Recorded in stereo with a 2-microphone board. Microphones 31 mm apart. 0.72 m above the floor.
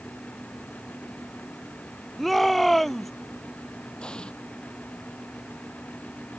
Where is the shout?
5° left (ahead or behind).